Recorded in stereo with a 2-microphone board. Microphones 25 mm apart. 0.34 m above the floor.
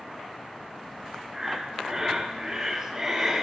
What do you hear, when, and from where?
1.3 s breathing: 15° right (ahead or behind), 3.5 m